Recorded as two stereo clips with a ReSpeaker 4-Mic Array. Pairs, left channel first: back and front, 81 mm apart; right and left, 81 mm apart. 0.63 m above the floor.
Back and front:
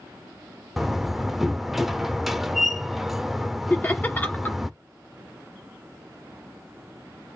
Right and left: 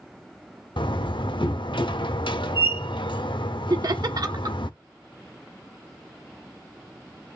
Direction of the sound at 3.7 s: 115° left.